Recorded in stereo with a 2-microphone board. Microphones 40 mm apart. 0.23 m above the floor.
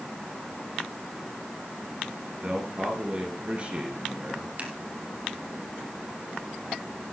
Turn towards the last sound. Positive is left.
turn(degrees=-40)  # may be behind; listen again after turning